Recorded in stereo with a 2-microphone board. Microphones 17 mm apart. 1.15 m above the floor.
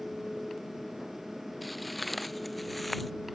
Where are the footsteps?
Centre (ahead or behind).